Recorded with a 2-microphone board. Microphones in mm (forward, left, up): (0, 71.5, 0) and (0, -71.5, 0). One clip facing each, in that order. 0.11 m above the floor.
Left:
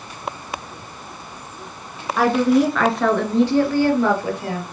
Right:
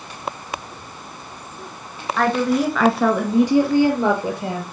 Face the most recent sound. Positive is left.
turn(degrees=-25)  # may be behind; listen again after turning